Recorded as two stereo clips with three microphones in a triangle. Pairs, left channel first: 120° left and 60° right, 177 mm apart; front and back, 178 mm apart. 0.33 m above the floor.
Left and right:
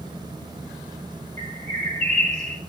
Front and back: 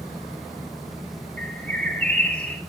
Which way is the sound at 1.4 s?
80° right.